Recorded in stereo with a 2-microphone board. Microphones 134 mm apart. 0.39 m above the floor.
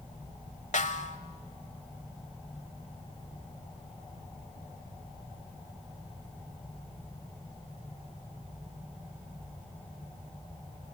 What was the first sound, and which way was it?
A snare drum, 65° left (ahead or behind).